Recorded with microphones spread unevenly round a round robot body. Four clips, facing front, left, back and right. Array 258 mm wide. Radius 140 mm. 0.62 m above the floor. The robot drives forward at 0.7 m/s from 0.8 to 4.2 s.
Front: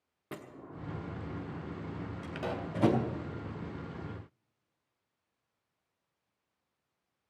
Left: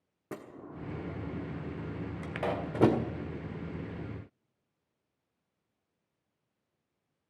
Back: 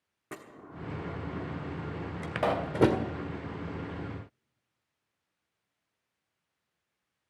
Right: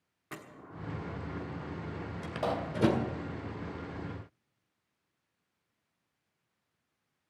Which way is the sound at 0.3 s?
90° left.